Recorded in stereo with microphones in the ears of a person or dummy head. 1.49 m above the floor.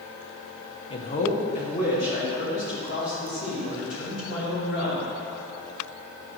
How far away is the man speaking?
About 0.8 m.